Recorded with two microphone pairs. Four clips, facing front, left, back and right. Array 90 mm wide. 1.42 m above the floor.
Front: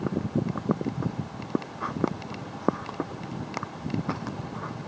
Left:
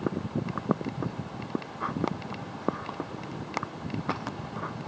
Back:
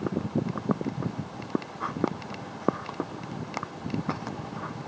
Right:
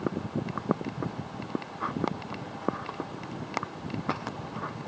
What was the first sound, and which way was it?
Only background noise.